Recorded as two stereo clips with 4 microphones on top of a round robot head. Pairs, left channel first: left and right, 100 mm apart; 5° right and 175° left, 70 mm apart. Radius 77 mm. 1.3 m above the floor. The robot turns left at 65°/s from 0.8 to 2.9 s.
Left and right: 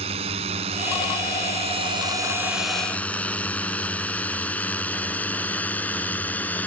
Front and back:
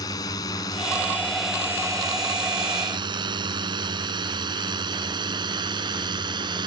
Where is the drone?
55° right; by 6.7 s 165° left.